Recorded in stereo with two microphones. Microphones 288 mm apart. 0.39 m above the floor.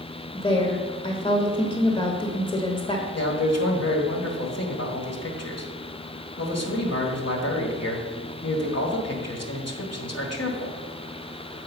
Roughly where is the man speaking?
Left.